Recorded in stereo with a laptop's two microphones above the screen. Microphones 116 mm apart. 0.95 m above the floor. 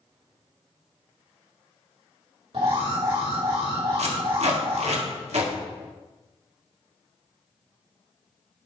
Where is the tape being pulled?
65° right (ahead or behind), 1.7 m.